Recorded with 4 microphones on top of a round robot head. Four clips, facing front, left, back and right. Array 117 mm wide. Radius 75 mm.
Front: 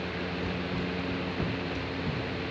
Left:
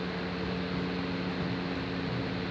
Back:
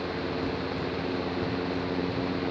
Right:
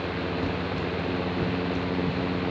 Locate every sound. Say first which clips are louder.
0.4 s running footsteps: right 5 dB, back 2 dB; 100° right, 2 m; by 2.3 s 40° right, 3.5 m